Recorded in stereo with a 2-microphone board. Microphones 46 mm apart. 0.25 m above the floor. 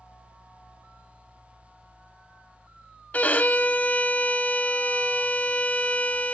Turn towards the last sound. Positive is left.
turn(degrees=35)  # may be behind; listen again after turning